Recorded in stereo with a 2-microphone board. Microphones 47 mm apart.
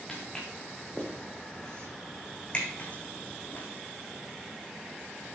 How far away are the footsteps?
About 4 m.